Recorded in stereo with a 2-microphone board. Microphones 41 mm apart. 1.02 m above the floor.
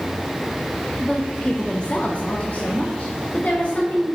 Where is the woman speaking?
5° left (ahead or behind), 0.5 m; by 4.0 s 40° left (ahead or behind), 1.7 m.